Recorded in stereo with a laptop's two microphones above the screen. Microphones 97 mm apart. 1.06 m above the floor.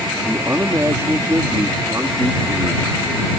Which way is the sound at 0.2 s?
30° right (ahead or behind).